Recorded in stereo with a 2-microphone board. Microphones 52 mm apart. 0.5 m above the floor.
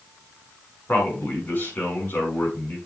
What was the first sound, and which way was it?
A man speaking, 45° left (ahead or behind).